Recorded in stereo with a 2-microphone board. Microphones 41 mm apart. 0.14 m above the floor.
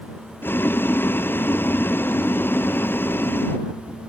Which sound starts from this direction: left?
Boiling, at 0.4 s.